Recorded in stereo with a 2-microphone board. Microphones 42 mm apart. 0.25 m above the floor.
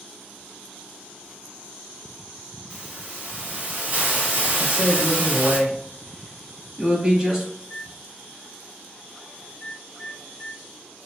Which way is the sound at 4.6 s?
15° right (ahead or behind).